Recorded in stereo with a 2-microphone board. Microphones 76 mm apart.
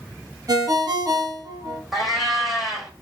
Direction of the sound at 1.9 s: Centre (ahead or behind).